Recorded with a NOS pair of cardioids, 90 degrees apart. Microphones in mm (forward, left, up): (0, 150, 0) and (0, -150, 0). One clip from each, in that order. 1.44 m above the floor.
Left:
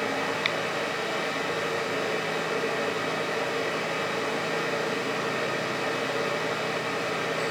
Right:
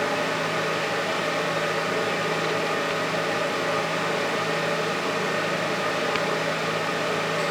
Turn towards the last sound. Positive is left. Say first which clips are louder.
# right 3 dB
turn(degrees=-30)